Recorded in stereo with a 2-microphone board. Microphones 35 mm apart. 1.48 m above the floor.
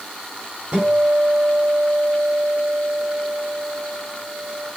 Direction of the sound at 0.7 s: 35° right (ahead or behind).